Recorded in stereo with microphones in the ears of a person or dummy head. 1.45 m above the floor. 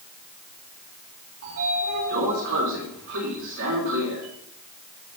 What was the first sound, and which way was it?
A sliding door, 60° right (ahead or behind).